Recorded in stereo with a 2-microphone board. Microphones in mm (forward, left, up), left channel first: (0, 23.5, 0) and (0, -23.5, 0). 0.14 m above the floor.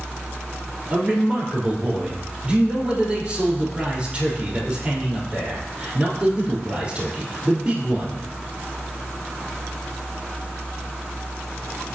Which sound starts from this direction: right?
A man speaking, at 0.9 s.